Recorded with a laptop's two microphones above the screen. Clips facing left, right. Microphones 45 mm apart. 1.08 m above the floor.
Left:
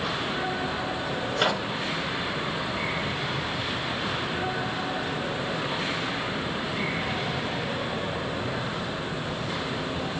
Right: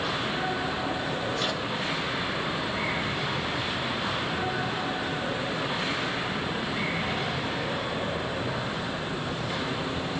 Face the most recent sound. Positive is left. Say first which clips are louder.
# left 4 dB
turn(degrees=60)  # may be behind; listen again after turning